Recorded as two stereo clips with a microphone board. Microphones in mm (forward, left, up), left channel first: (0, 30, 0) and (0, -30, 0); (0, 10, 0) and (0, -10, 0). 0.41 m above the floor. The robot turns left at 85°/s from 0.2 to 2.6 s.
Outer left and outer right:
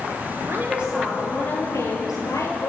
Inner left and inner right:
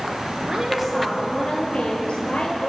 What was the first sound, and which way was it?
A woman speaking, 130° right.